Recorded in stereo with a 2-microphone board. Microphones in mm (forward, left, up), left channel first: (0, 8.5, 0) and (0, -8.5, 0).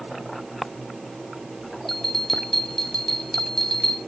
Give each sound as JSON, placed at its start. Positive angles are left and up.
{"t": 1.9, "sound": "a bell", "side_deg": 20, "distance_m": 2.0}